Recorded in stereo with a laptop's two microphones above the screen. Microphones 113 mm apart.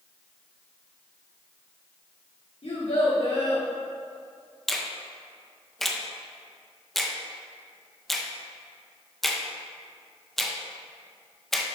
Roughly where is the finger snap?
Centre.